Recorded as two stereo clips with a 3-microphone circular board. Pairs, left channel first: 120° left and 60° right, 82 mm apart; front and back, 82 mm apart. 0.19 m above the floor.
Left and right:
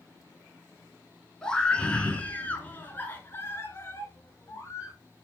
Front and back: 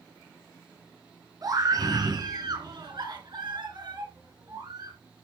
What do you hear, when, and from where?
1.4 s a scream: 160° right, 2.5 m; by 5.0 s 170° left, 4 m